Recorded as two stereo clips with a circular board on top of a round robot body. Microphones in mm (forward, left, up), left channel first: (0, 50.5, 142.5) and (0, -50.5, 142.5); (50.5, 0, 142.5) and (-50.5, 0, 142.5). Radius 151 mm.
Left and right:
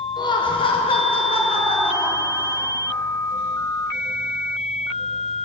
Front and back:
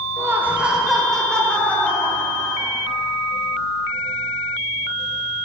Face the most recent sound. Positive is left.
turn(degrees=65)